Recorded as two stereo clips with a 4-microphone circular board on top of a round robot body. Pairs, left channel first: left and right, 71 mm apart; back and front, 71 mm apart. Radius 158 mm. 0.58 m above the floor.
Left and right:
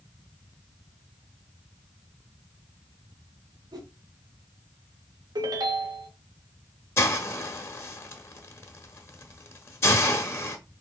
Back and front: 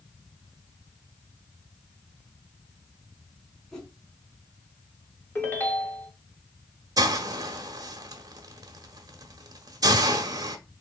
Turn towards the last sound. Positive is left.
turn(degrees=35)